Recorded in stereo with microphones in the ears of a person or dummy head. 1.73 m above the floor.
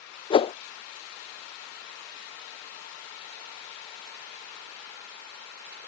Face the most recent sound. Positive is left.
turn(degrees=30)  # may be behind; listen again after turning